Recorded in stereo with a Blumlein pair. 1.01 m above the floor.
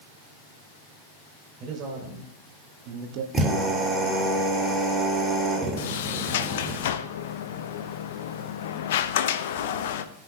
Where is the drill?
10° right, 6 m.